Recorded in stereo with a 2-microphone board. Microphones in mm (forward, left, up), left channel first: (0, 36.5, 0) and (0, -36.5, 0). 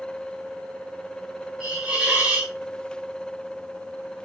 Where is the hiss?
15° right (ahead or behind), 1.0 m.